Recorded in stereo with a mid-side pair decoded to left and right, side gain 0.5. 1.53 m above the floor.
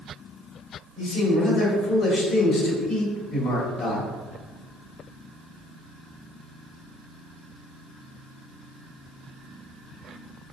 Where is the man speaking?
70° left, 1.4 m.